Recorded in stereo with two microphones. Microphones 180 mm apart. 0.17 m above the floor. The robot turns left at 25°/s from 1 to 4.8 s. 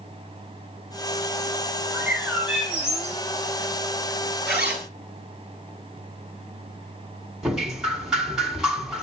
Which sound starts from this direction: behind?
A bird, at 1.9 s.